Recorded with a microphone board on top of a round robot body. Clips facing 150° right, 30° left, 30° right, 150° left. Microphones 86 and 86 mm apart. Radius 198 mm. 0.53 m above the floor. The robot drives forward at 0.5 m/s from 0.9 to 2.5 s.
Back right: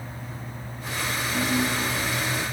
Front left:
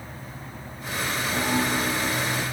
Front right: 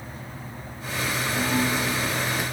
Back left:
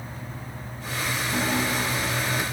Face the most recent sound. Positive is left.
turn(degrees=95)